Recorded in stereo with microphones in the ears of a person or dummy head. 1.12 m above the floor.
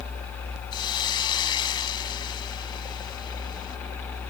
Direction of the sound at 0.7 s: 25° left (ahead or behind).